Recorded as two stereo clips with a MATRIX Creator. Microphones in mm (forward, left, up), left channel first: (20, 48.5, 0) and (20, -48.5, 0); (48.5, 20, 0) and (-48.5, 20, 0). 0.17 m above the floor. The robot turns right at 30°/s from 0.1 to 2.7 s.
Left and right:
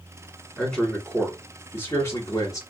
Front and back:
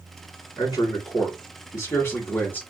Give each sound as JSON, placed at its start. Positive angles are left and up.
{"t": 0.6, "sound": "a man speaking", "azimuth_deg": 5, "distance_m": 1.6}